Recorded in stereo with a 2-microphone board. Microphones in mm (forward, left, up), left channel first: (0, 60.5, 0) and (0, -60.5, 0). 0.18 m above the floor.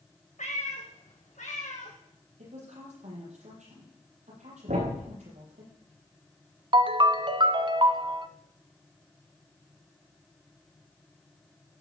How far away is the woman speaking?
About 6 m.